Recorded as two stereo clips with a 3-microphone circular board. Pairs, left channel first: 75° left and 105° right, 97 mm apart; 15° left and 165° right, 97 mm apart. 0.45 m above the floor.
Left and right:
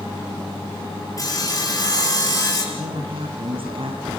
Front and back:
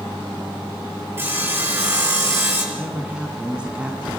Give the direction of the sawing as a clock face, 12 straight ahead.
8 o'clock.